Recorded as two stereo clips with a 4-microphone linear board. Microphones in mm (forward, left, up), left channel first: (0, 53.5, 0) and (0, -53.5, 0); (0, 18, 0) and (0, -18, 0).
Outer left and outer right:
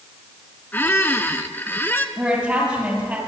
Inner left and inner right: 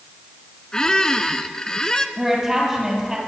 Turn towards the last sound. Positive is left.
turn(degrees=-10)  # may be behind; listen again after turning